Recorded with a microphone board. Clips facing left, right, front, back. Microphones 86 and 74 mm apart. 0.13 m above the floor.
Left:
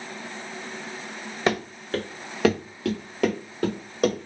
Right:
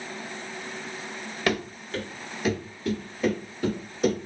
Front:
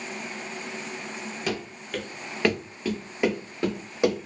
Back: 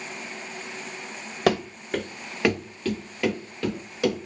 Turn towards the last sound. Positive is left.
turn(degrees=60)